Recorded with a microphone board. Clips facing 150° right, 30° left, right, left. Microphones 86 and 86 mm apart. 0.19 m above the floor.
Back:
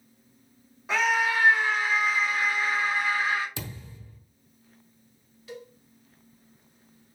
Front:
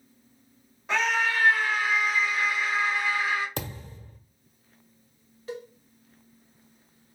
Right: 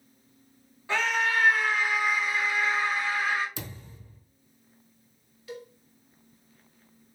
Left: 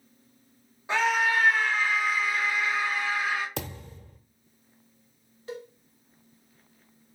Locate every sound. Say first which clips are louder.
0.9 s a scream: back 1 dB, left 2 dB; 125° left, 1.2 m; by 3.5 s 130° right, 2 m
3.6 s a thud: front 4 dB, left 5 dB; 70° left, 0.8 m
5.5 s a cowbell: front 5 dB, left 2 dB; 60° left, 0.9 m